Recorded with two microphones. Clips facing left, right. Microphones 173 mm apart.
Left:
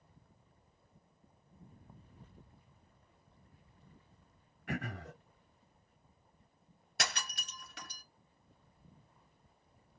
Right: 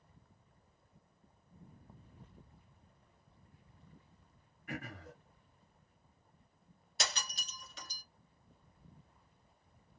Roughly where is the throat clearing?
Left.